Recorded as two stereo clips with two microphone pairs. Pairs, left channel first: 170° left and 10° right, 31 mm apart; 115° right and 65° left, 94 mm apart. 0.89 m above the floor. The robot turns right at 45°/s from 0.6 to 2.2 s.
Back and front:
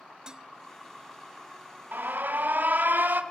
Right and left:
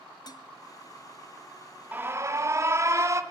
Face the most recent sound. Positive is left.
turn(degrees=5)